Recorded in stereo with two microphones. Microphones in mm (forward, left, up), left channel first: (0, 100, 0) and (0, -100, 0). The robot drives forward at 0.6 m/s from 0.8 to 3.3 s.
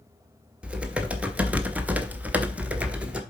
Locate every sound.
0.6 s typing on a keyboard: 5° right (ahead or behind), 1.0 m